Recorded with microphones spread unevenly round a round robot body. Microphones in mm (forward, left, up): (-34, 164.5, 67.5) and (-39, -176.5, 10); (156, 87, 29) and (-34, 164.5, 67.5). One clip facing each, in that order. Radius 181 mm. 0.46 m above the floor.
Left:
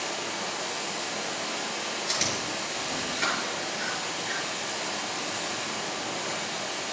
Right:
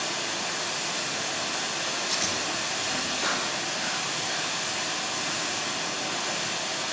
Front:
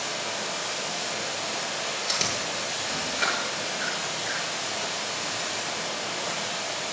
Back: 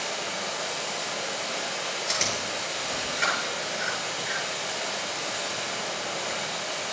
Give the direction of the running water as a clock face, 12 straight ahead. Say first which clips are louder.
Even, even; 2 o'clock.